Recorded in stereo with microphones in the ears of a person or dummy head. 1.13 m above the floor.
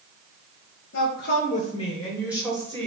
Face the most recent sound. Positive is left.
turn(degrees=-30)  # may be behind; listen again after turning